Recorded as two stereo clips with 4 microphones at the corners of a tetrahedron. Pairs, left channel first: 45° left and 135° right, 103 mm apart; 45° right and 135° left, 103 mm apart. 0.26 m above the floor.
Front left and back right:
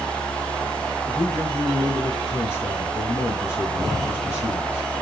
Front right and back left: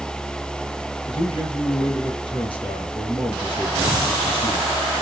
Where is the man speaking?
15° right, 4 m.